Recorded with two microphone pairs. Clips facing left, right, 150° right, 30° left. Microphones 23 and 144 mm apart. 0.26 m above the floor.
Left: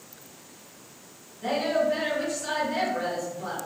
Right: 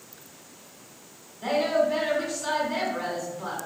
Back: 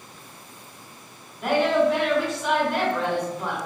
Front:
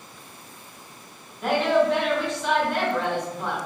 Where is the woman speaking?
65° right, 1.1 m.